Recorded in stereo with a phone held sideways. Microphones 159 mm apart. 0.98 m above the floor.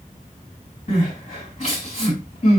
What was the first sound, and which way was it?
Crying, 55° left (ahead or behind).